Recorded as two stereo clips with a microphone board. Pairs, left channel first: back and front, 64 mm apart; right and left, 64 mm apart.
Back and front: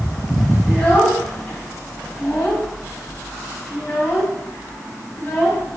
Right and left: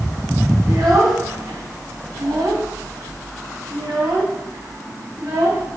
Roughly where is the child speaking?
Left.